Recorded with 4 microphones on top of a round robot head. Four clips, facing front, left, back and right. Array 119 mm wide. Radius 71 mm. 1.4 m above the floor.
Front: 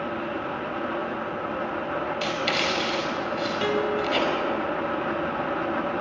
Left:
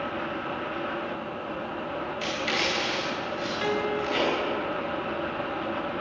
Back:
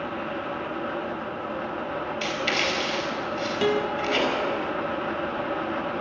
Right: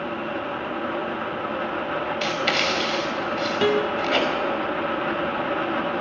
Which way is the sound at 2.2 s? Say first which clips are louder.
Right 3 dB, front 1 dB; 70° right.